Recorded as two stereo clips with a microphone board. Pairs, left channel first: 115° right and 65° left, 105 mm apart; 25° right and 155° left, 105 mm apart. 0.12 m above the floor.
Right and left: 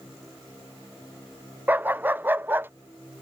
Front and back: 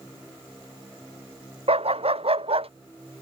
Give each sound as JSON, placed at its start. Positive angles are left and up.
{"t": 1.7, "sound": "a dog barking", "azimuth_deg": 140}